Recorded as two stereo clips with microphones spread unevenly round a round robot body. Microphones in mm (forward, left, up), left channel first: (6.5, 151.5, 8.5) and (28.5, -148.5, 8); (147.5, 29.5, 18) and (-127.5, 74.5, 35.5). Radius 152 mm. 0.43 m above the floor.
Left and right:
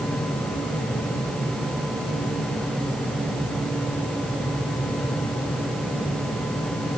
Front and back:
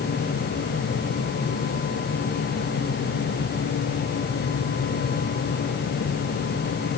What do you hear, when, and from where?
Only background noise.